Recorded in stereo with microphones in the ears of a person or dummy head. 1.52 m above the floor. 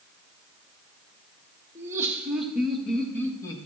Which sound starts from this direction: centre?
Laughter, at 1.8 s.